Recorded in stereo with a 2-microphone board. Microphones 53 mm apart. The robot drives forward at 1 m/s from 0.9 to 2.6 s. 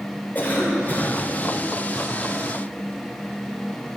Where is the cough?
30° left (ahead or behind), 2.5 m.